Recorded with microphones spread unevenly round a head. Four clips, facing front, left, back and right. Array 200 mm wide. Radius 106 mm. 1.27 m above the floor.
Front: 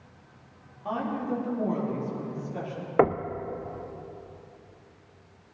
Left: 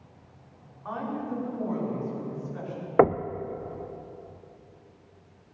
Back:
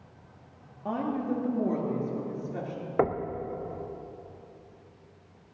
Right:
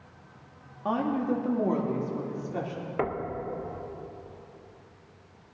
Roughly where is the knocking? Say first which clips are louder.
Left 10 dB, front 4 dB; left.